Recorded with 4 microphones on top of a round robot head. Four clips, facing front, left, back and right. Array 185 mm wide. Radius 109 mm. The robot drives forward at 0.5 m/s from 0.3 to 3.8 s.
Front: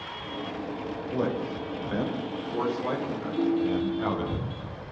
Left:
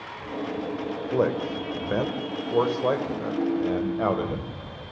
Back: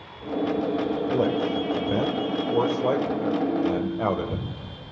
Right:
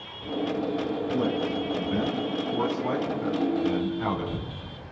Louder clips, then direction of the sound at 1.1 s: Left 4 dB, back 4 dB; 120° left.